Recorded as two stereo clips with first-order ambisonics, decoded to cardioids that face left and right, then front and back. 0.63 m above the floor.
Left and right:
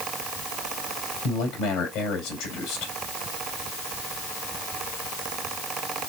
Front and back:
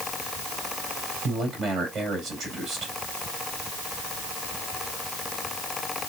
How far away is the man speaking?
About 2.5 m.